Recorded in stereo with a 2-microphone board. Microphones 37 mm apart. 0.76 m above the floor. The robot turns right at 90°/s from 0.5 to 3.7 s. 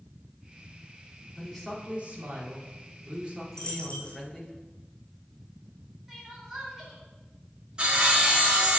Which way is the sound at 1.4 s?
165° left.